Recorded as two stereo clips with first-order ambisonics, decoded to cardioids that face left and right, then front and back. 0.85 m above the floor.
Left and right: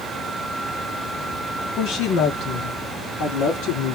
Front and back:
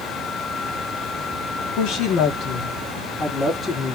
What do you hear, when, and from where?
1.8 s a woman speaking: 40° left, 1.2 m; by 4.0 s 75° left, 1.9 m